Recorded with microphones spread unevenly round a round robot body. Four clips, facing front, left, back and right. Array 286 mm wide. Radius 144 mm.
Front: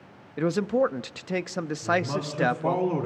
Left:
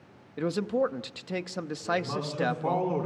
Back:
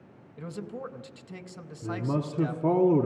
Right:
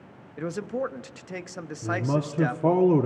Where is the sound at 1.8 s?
125° right, 1.7 m.